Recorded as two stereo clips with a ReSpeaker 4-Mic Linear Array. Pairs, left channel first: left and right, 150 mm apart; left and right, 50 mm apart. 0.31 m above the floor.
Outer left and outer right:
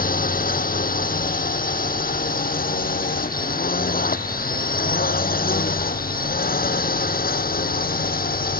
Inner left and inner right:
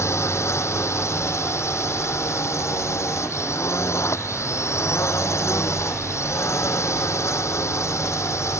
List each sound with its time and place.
0.0 s a drone: 70° left (ahead or behind); by 8.6 s 75° left (ahead or behind)